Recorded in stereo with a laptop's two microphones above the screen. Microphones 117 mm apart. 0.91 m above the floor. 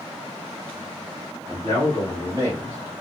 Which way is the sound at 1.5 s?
40° right (ahead or behind).